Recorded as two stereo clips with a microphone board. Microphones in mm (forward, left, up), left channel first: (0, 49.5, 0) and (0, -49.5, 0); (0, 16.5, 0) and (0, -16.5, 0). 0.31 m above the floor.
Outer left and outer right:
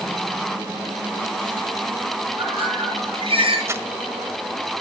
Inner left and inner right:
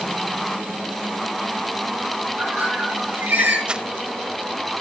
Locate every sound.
2.4 s a bird: 70° right (ahead or behind), 6 m
3.7 s crumpling: 30° right (ahead or behind), 0.8 m